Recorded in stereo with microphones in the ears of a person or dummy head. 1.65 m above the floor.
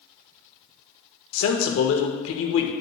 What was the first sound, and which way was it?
A man speaking, 75° left (ahead or behind).